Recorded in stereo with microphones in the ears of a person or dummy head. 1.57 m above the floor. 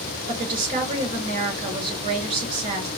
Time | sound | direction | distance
0.3 | a woman speaking | 35° right (ahead or behind) | 2 m